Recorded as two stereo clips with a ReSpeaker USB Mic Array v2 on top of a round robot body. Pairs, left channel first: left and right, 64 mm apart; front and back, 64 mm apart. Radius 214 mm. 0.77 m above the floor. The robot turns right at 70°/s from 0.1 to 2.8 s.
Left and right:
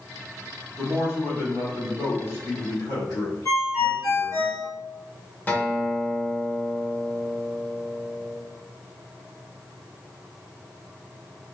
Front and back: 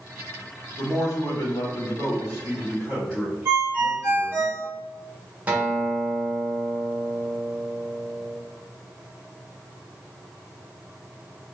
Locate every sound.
0.8 s a man speaking: 40° right, 2.0 m; by 4.5 s 100° left, 2.0 m
3.5 s a ringtone: 120° left, 1.3 m
5.5 s a guitar: 130° left, 1.1 m